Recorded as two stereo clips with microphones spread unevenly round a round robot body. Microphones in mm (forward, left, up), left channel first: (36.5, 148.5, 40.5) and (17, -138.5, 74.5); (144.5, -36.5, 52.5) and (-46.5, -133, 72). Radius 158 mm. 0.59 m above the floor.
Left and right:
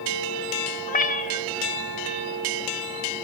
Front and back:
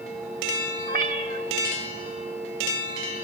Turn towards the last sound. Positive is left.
turn(degrees=145)